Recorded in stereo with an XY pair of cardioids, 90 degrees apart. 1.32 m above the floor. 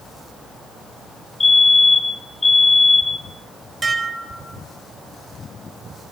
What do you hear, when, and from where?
1.4 s a fire alarm: 30° left, 2.5 m
3.8 s dishes clattering: 25° right, 4.5 m